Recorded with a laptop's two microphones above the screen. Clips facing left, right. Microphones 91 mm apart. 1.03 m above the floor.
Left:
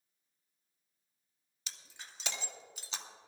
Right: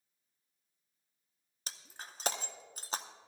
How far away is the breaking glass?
About 0.6 m.